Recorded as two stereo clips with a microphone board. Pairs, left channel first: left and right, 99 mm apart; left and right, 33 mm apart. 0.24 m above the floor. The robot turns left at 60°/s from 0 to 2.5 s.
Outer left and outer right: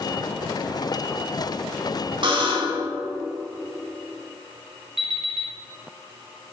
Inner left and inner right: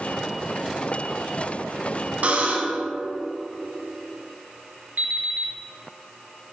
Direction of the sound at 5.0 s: 75° right (ahead or behind).